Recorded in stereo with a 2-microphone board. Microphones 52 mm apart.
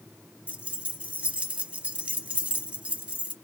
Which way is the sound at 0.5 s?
25° right (ahead or behind).